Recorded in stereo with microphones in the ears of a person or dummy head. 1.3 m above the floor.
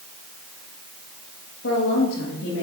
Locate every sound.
1.6 s a woman speaking: 85° left, 1.8 m; by 2.6 s 70° left (ahead or behind), 2 m